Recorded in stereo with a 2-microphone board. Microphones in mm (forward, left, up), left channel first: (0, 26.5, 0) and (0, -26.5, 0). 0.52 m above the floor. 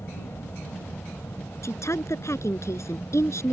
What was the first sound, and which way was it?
An aircraft, 60° left (ahead or behind).